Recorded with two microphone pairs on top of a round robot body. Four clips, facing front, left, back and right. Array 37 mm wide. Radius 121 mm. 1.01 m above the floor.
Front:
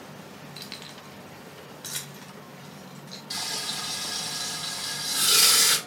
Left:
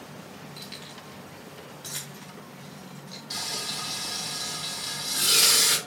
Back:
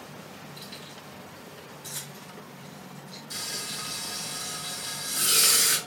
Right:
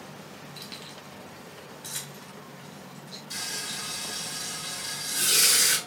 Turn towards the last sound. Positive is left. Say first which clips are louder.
# left 2 dB, front 4 dB
turn(degrees=30)